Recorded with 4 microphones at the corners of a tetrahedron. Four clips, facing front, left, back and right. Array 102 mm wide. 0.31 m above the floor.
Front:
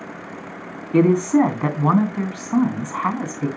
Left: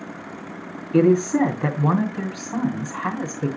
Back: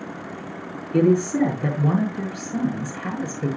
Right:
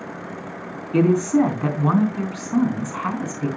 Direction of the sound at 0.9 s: Straight ahead.